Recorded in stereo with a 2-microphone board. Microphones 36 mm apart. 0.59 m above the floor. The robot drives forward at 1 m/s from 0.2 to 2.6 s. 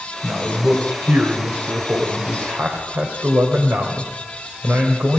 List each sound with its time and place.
0.2 s a man speaking: 50° right (ahead or behind), 3.5 m; by 5.2 s 70° right (ahead or behind), 3 m